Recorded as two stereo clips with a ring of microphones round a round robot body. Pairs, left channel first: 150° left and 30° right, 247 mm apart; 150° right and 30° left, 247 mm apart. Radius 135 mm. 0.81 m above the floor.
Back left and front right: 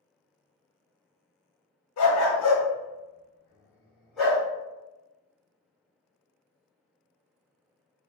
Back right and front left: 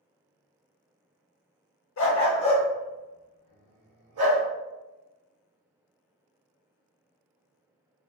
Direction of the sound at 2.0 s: 175° left.